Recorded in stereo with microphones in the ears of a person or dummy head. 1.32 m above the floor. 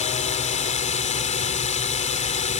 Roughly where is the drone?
Left.